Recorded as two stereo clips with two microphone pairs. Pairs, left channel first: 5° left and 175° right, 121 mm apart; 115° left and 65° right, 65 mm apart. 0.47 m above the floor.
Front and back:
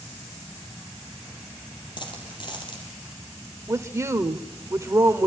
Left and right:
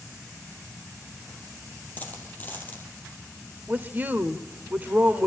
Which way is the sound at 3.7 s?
115° right.